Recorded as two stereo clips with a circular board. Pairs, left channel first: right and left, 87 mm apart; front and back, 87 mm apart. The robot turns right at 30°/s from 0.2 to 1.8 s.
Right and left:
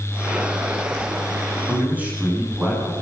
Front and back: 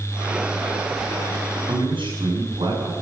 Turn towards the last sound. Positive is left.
turn(degrees=165)